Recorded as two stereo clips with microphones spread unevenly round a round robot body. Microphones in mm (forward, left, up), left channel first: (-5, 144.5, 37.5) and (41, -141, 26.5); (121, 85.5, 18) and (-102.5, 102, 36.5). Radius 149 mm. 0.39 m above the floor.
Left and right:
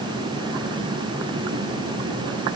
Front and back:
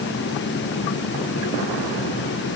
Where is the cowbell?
I don't hear a cowbell.